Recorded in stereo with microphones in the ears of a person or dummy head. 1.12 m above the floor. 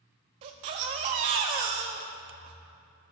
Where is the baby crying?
35° right (ahead or behind), 0.6 m.